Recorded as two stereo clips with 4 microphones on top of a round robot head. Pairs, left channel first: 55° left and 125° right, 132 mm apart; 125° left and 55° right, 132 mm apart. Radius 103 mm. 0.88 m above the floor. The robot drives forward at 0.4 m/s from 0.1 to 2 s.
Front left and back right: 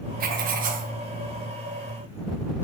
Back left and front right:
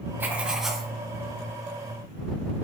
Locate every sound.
0.2 s writing: 130° right, 0.5 m; by 0.9 s 145° right, 0.7 m